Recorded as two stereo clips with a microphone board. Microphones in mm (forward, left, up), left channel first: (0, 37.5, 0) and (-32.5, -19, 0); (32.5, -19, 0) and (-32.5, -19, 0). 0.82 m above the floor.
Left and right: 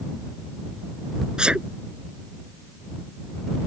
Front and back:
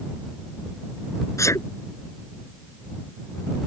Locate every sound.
1.4 s a sneeze: 40° right